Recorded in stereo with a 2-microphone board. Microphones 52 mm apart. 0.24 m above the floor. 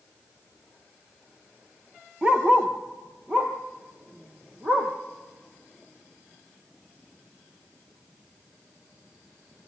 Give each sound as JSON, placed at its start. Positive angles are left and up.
{"t": 2.2, "sound": "a dog barking", "side_deg": -20, "distance_m": 2.0}